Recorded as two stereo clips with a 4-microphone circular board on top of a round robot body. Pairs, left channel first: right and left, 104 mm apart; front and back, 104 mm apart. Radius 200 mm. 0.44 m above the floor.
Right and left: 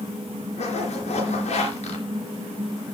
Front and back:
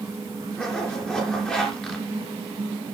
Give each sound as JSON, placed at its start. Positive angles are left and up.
{"t": 0.6, "sound": "a zipper", "azimuth_deg": -80, "distance_m": 3.5}